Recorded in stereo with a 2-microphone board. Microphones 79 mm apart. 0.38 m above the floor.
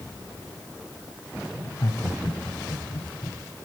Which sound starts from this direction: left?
Laughter, at 1.6 s.